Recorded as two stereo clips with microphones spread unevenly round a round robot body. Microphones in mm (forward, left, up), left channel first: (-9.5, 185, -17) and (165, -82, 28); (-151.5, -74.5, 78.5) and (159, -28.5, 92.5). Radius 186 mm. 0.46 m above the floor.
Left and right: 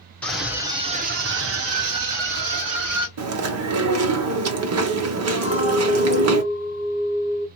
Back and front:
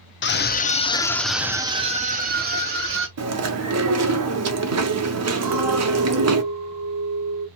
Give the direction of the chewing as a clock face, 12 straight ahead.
1 o'clock.